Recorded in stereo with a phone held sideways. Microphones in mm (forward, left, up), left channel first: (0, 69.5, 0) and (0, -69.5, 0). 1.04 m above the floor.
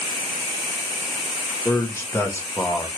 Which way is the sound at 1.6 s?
20° left (ahead or behind).